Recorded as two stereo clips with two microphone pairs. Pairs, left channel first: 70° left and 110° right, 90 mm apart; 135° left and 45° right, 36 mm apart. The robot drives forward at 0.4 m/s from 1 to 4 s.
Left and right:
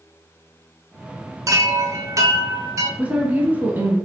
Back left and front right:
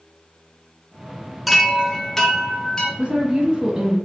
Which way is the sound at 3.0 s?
55° right.